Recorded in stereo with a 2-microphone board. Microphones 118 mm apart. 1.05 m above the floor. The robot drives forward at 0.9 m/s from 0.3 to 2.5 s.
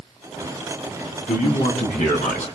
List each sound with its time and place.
1.3 s a man speaking: 80° left, 8.5 m; by 2.5 s 85° left, 8.5 m